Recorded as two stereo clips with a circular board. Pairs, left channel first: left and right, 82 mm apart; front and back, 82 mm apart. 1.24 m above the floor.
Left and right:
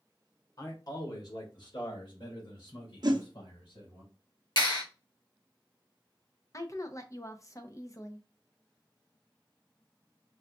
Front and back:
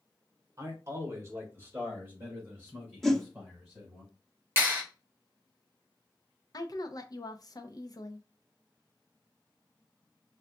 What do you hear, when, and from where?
0.6 s a man speaking: 130° left, 1.3 m; by 4.0 s 110° left, 4 m
3.0 s a whoosh: 90° right, 0.6 m
4.6 s a clap: 120° left, 2 m
6.5 s a woman speaking: 40° left, 0.7 m